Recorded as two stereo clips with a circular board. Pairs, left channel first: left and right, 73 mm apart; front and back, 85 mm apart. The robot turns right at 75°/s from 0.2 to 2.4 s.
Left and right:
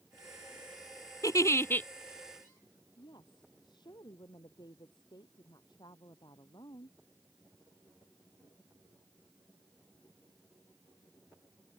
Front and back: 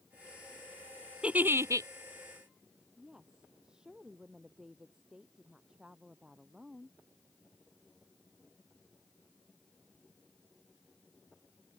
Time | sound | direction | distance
1.2 | a giggle | 105° left | ?
3.0 | a woman speaking | 100° left | ?